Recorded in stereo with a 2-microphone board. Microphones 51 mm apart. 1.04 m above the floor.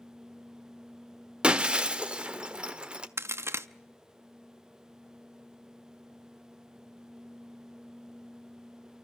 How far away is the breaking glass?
About 1.1 m.